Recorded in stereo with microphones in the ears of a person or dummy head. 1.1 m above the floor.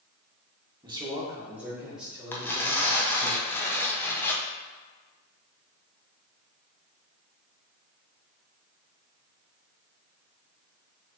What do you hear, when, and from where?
0.8 s a man speaking: 20° right (ahead or behind), 1.3 m; by 3.3 s 10° left (ahead or behind), 2 m
2.3 s tearing paper: 10° left (ahead or behind), 0.6 m